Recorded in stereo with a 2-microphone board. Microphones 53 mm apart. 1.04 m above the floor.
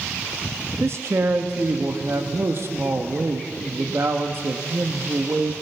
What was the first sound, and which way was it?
A man speaking, 55° right (ahead or behind).